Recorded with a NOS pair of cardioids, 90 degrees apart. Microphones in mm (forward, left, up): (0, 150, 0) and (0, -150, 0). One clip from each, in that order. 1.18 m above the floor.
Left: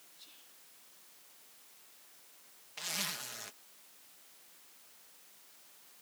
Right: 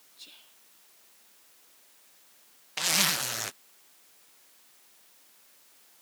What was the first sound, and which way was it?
Whispering, 55° right.